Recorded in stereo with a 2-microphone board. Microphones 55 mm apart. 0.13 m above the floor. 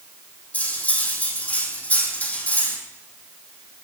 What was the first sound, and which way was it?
Cutlery clinking, 25° left (ahead or behind).